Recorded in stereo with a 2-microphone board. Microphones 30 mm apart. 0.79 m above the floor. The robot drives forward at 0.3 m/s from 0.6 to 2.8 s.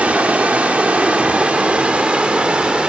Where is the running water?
60° right (ahead or behind), 1.6 m; by 2.9 s 45° right (ahead or behind), 2.0 m.